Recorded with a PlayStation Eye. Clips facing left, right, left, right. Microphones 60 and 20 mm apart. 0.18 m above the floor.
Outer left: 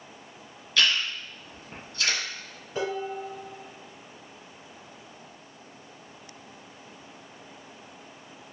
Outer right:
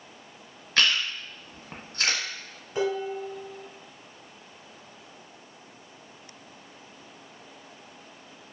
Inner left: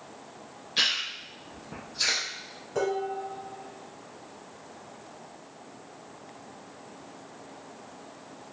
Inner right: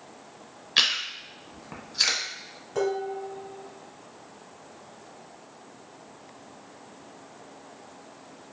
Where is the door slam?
No door slam in this recording.